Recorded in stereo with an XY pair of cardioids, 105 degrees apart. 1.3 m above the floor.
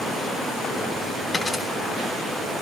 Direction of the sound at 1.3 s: 10° left.